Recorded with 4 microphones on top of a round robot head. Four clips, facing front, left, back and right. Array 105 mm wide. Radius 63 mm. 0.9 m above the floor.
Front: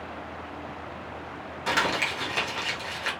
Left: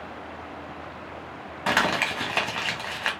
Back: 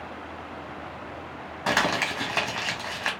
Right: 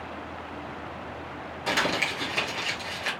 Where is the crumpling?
120° left, 1.5 m.